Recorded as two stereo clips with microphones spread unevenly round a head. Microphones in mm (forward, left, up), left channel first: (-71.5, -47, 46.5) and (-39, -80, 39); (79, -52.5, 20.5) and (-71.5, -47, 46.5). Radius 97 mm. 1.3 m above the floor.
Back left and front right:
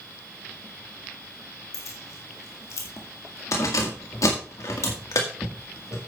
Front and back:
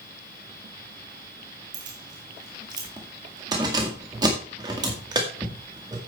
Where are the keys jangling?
110° left, 1.8 m.